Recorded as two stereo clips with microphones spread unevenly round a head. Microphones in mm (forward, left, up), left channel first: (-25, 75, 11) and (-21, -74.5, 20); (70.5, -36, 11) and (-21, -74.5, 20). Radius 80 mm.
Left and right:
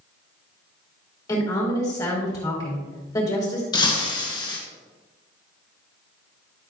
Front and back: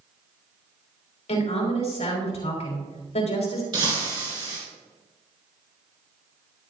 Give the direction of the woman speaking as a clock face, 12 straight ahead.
11 o'clock.